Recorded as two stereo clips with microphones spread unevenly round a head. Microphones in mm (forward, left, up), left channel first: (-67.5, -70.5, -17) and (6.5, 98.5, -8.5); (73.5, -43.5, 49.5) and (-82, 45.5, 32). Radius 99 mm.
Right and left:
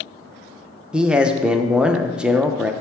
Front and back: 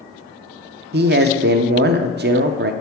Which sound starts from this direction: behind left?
A man speaking, at 0.9 s.